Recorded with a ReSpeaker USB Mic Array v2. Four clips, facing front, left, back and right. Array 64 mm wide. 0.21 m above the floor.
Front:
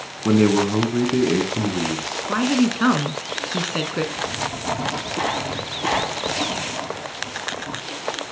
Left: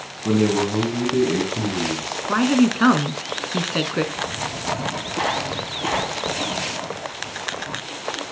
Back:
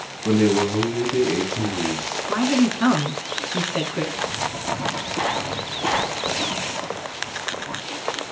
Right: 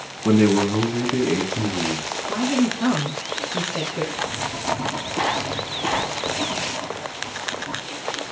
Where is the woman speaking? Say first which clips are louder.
Left 4 dB, even; 75° left, 1.9 m.